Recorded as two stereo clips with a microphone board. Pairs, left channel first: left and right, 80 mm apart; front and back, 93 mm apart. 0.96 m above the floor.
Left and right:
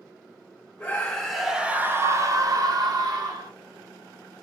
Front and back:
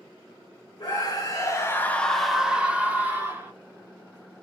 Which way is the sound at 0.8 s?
20° left.